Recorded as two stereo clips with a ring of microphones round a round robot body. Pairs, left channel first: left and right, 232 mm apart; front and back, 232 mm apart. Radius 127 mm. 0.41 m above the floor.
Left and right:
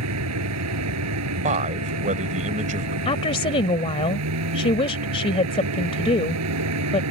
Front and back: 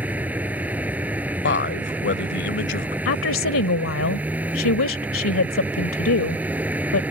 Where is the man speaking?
30° right.